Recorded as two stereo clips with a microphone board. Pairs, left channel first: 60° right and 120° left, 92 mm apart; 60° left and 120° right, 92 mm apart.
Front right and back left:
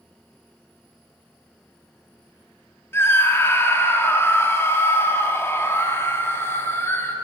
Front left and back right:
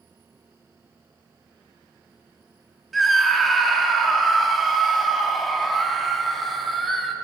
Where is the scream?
30° right, 0.9 m.